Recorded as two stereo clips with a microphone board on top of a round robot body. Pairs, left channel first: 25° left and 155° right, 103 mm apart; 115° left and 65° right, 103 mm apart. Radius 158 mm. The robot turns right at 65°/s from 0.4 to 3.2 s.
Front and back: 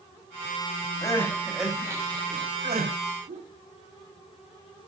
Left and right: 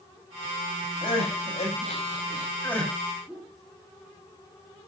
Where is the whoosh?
155° right, 7.5 m.